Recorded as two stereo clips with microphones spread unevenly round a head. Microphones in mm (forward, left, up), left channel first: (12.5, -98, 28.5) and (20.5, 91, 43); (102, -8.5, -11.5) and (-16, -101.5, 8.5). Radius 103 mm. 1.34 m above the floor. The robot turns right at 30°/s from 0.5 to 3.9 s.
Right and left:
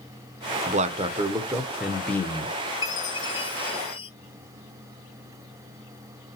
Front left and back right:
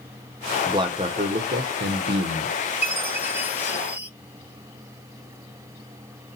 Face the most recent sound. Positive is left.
turn(degrees=-105)